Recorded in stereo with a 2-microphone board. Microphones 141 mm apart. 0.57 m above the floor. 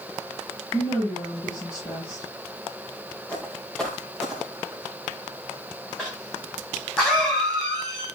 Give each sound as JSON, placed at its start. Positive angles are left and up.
{"t": 0.7, "sound": "a woman speaking", "side_deg": 30, "distance_m": 8.5}
{"t": 3.3, "sound": "footsteps", "side_deg": 10, "distance_m": 4.0}
{"t": 6.0, "sound": "a cough", "side_deg": 5, "distance_m": 4.5}